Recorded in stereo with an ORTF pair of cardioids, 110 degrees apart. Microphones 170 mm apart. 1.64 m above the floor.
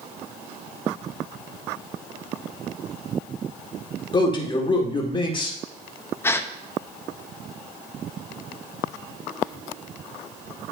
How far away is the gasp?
About 0.6 m.